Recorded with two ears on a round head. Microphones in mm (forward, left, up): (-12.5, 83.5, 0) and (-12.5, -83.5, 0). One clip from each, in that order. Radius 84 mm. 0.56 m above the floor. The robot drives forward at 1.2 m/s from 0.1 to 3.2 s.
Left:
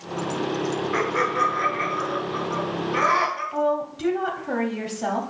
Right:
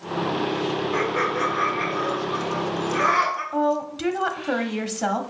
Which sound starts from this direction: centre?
Laughter, at 0.9 s.